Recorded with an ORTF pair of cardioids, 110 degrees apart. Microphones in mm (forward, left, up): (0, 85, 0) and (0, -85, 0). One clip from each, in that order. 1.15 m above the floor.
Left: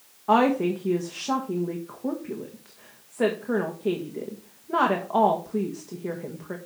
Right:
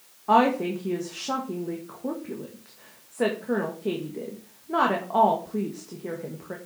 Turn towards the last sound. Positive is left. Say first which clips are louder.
# even
turn(degrees=10)